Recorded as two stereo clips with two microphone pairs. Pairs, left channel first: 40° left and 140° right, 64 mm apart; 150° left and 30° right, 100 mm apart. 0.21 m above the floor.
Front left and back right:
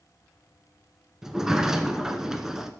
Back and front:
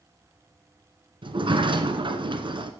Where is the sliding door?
60° right, 0.8 m.